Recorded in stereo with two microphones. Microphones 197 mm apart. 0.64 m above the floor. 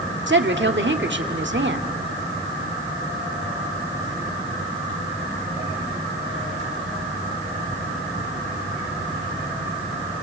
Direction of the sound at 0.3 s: 60° right (ahead or behind).